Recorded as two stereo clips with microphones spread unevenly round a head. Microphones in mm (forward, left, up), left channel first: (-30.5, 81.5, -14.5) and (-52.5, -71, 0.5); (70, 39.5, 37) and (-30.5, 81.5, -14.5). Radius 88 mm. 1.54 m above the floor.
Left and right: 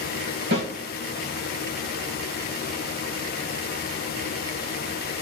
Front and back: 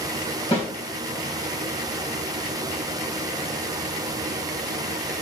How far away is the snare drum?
About 3.5 m.